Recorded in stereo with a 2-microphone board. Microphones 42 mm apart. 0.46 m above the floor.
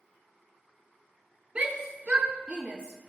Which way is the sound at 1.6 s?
25° right (ahead or behind).